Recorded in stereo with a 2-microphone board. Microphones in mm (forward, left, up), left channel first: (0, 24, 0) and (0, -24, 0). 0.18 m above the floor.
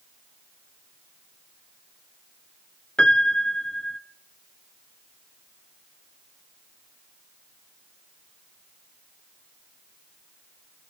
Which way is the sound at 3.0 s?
20° left (ahead or behind).